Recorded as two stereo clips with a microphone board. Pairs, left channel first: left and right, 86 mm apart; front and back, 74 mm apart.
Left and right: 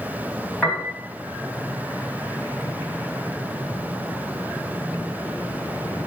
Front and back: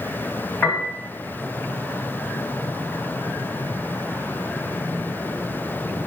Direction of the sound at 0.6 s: 15° left.